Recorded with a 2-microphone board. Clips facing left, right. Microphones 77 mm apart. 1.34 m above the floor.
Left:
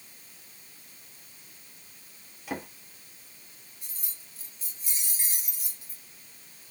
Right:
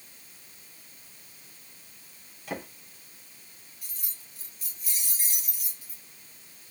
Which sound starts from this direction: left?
Keys jangling, at 3.8 s.